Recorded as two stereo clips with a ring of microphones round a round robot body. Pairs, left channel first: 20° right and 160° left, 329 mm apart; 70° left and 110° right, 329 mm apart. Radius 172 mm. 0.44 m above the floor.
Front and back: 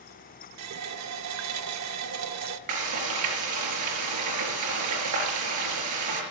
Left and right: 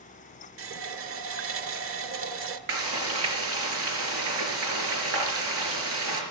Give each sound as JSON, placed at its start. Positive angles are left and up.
{"t": 0.6, "sound": "a running tap", "azimuth_deg": -160, "distance_m": 1.0}
{"t": 2.7, "sound": "frying", "azimuth_deg": -165, "distance_m": 4.5}